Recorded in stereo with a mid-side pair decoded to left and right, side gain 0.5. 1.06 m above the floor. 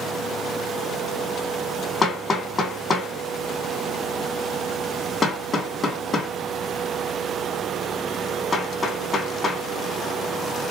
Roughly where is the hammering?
Ahead left.